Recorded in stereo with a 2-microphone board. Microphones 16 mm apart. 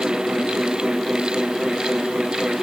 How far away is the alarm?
I don't hear an alarm.